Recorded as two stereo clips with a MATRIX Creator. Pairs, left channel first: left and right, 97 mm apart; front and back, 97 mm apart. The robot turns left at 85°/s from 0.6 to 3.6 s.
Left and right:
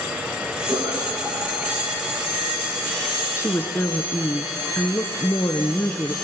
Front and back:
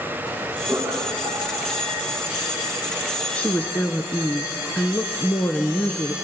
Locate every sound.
0.7 s laughter: 120° right, 9.5 m; by 1.9 s 130° left, 9.5 m
3.4 s a woman speaking: 70° left, 1.2 m; by 6.1 s 45° left, 1.2 m